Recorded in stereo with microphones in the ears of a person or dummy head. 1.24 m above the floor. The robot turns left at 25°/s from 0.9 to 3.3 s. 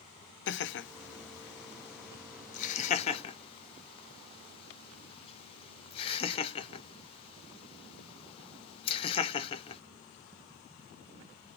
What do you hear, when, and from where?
0.5 s laughter: 55° left (ahead or behind), 0.5 m; by 9.8 s 30° left (ahead or behind), 0.5 m